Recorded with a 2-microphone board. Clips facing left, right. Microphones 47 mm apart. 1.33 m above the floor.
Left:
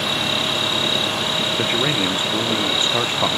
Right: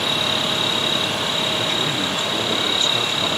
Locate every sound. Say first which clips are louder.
1.6 s a man speaking: left 2 dB; 30° left (ahead or behind)